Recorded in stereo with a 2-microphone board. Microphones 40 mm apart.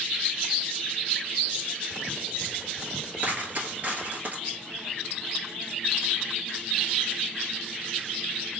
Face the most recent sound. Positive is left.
turn(degrees=-50)  # may be behind; listen again after turning